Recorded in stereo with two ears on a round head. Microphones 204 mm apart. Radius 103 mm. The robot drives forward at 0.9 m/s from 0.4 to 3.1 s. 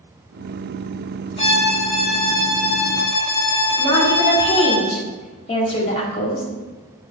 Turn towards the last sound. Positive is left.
turn(degrees=30)  # may be behind; listen again after turning